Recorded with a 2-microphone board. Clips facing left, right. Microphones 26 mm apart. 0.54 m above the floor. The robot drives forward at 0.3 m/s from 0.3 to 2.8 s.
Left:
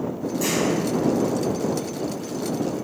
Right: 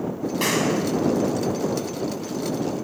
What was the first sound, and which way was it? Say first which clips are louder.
A clap: right 1 dB; 55° right (ahead or behind).